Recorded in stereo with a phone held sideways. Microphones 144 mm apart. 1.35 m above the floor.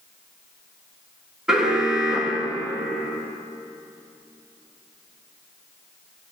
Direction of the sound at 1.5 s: 5° right (ahead or behind).